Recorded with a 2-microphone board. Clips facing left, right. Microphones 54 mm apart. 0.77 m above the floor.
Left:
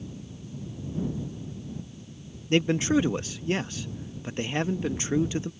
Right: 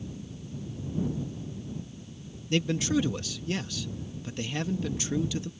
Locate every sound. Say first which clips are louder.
2.5 s a man speaking: left 4 dB; 30° left (ahead or behind)